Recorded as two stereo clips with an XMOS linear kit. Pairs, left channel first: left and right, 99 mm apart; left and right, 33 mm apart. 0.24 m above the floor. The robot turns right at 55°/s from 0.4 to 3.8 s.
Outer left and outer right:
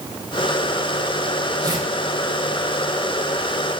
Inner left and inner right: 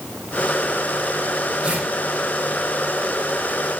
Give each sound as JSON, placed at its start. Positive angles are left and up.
{"t": 1.6, "sound": "tearing paper", "side_deg": -35, "distance_m": 4.0}